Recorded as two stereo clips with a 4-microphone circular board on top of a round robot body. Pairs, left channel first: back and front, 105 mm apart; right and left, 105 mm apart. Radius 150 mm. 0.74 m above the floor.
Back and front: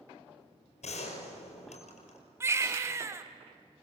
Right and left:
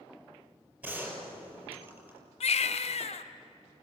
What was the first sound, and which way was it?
A gunshot, 165° left.